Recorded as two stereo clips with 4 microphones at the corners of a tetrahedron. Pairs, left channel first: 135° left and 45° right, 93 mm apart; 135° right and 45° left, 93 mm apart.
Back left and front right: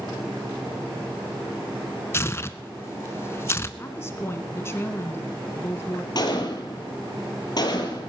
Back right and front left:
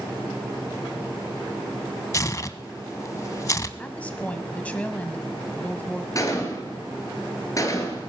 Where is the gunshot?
175° left, 2.5 m.